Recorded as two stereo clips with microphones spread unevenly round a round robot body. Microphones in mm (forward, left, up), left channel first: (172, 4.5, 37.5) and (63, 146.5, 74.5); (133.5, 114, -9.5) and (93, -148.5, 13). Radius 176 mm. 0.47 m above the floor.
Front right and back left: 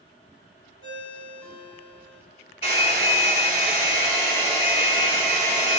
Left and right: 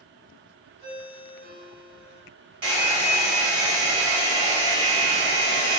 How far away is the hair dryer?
About 0.9 m.